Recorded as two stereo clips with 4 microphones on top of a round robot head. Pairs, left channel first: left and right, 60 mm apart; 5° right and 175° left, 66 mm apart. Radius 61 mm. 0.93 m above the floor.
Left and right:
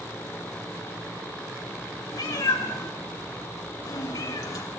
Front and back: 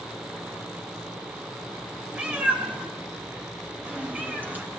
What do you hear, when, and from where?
2.1 s a cat meowing: 105° left, 2.5 m; by 4.6 s 110° left, 4.5 m